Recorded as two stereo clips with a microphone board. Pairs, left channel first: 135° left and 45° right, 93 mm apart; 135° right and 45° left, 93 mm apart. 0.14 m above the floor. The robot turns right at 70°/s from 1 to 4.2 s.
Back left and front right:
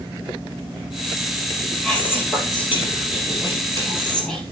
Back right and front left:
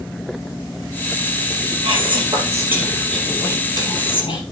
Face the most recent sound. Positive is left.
turn(degrees=-145)